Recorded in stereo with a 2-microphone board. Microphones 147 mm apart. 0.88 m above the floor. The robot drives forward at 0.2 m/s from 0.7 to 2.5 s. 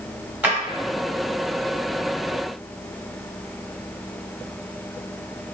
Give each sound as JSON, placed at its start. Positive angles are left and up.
{"t": 0.4, "sound": "a drawer", "side_deg": -10, "distance_m": 0.9}